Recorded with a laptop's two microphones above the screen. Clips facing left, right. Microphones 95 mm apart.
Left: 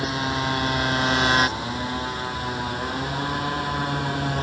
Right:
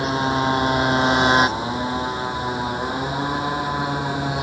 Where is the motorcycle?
25° right (ahead or behind); by 4.4 s 10° right (ahead or behind).